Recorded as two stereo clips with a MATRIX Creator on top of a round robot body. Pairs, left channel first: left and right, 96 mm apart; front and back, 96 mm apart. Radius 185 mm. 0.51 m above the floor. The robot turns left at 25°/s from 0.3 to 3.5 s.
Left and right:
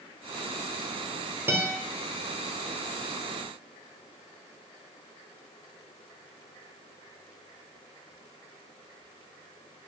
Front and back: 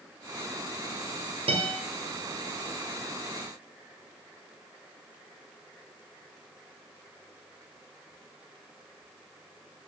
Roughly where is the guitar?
Behind right.